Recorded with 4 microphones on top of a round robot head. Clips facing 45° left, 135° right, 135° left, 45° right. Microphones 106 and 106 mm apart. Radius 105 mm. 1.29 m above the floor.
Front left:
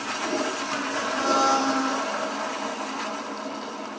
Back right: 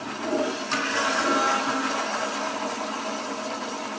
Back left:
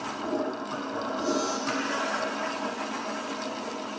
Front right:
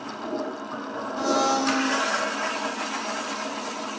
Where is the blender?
15° right.